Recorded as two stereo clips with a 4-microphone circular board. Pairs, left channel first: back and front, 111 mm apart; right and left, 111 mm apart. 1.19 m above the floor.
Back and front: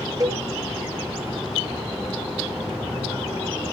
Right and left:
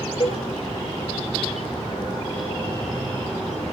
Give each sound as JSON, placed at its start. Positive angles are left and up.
{"t": 0.2, "sound": "a cowbell", "azimuth_deg": -55, "distance_m": 1.9}